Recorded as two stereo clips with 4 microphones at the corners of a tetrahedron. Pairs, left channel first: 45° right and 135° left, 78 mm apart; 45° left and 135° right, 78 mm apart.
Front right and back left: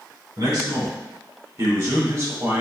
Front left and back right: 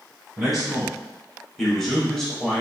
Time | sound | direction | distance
0.4 | a man speaking | 135° left | 1.9 m